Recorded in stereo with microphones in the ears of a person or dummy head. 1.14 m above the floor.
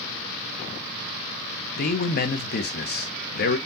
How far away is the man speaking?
About 1.0 m.